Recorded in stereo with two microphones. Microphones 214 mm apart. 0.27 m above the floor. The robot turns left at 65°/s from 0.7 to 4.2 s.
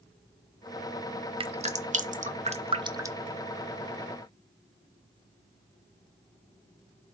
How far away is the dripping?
About 0.8 m.